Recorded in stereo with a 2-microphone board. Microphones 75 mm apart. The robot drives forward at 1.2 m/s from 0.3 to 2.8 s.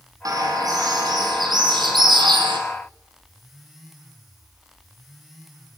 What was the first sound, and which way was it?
A bird, 55° right (ahead or behind).